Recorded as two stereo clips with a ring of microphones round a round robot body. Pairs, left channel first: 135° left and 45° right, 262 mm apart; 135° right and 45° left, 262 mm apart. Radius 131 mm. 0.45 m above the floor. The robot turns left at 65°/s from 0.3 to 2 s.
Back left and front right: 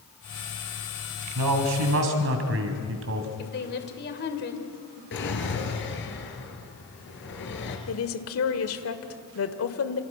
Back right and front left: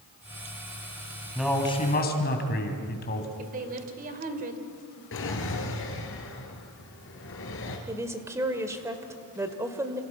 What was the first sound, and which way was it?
A man speaking, 40° right.